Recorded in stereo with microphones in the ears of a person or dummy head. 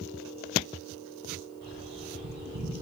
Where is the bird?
45° right (ahead or behind), 0.8 m.